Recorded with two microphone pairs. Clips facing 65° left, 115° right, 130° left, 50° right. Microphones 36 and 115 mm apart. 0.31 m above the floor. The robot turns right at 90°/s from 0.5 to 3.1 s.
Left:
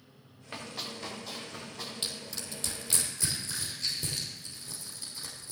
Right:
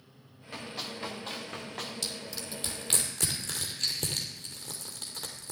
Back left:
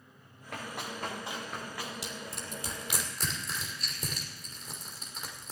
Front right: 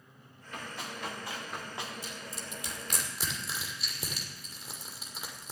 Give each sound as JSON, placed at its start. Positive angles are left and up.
{"t": 0.5, "sound": "running footsteps", "azimuth_deg": 130, "distance_m": 4.5}
{"t": 2.0, "sound": "crushing", "azimuth_deg": 130, "distance_m": 2.5}